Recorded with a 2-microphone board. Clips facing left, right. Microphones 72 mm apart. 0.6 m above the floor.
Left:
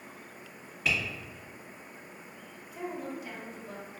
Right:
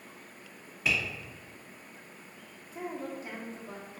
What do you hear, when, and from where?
0.8 s tapping: 5° right (ahead or behind), 1.3 m
2.7 s a woman speaking: 30° right (ahead or behind), 0.7 m